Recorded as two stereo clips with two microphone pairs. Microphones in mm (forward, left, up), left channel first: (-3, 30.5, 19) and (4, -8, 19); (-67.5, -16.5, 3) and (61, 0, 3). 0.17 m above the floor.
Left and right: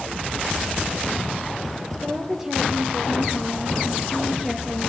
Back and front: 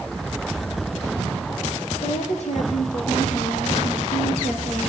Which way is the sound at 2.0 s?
150° right.